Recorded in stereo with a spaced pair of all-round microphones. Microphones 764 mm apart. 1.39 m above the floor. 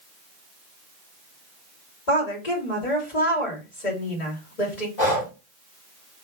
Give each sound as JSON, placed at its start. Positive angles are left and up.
{"t": 2.1, "sound": "a woman speaking", "side_deg": 65, "distance_m": 2.0}
{"t": 5.0, "sound": "breathing", "side_deg": 65, "distance_m": 1.7}